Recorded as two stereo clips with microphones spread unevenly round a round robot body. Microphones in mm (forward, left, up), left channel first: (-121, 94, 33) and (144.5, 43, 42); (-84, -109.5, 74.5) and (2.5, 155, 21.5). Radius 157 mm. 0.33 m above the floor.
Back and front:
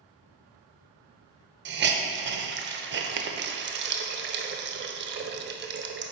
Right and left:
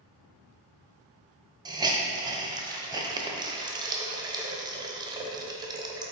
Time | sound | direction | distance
1.6 | a hiss | 20° left | 0.7 m